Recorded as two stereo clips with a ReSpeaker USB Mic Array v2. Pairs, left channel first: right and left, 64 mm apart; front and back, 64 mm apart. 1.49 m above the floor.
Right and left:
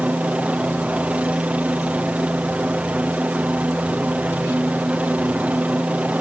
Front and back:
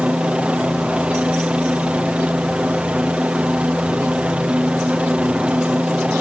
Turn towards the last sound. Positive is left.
turn(degrees=130)